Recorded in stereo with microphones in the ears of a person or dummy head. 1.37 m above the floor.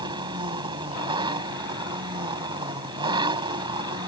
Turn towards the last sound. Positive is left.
turn(degrees=-25)  # may be behind; listen again after turning